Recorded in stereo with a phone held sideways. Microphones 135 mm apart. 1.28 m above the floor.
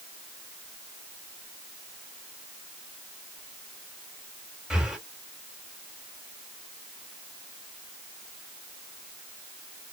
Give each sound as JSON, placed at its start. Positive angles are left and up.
{"t": 4.7, "sound": "breathing", "side_deg": -5, "distance_m": 2.0}